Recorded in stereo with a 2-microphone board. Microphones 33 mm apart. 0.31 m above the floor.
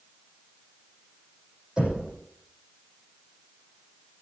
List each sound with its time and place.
1.8 s knocking: 20° right (ahead or behind), 6.5 m